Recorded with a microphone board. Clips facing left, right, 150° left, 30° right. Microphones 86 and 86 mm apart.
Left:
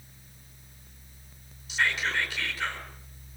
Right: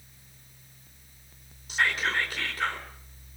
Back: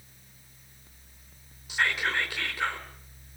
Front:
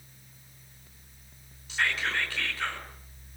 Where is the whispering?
135° right, 4 m.